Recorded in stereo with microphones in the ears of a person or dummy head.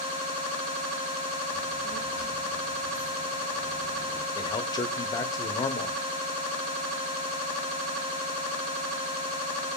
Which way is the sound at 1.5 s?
40° left (ahead or behind).